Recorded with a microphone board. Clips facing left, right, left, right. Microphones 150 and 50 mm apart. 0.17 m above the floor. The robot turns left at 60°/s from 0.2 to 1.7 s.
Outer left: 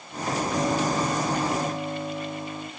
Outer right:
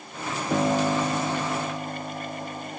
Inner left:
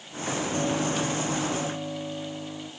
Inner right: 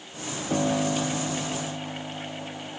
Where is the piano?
120° right, 7.5 m; by 2.7 s 165° left, 7.5 m.